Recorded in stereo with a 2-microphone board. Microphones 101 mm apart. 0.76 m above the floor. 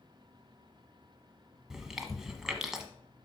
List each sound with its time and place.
1.7 s chewing: 5° right (ahead or behind), 1.1 m